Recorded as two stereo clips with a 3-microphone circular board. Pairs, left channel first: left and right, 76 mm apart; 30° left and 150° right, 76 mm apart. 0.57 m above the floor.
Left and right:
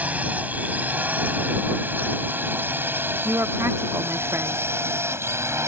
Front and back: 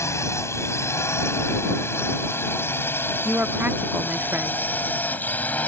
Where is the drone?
20° right; by 5.7 s 40° right.